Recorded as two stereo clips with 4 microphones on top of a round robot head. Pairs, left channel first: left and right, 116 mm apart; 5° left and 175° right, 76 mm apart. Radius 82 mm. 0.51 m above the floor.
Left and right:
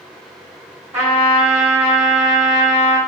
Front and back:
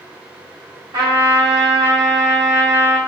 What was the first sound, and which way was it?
A trumpet, 160° right.